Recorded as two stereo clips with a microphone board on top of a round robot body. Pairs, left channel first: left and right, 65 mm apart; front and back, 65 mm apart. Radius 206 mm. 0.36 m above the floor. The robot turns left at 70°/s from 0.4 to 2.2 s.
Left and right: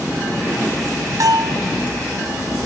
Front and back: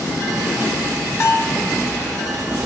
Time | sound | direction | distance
1.2 | a bell | 50° right | 1.8 m